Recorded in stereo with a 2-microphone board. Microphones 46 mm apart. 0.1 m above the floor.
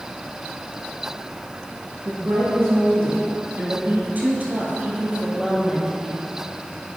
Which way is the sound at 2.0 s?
60° right (ahead or behind).